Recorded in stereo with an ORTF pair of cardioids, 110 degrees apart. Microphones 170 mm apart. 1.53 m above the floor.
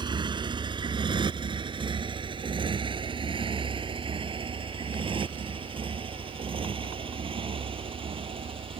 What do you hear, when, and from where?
0.0 s a motorcycle: 25° right; by 8.8 s 30° right